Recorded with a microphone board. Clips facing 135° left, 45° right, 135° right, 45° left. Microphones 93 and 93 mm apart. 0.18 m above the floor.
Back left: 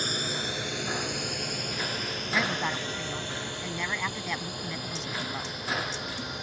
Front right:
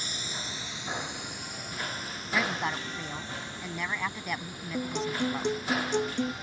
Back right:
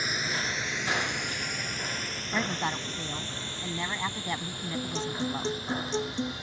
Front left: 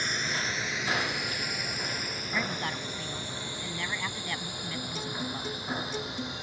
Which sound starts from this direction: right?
A guitar, at 4.7 s.